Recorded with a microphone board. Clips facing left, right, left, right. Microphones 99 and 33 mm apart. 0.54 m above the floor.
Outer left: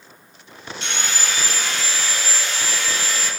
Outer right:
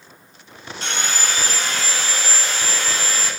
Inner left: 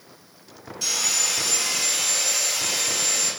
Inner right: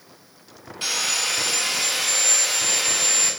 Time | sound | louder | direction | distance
0.8 | sawing | outer right 2 dB, inner right 2 dB | 40° right (ahead or behind) | 0.6 m